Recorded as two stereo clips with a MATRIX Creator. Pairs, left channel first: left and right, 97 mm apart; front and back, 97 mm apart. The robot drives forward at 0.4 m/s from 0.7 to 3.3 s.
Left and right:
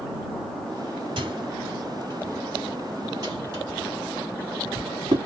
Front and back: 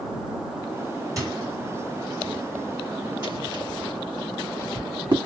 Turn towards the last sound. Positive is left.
turn(degrees=-140)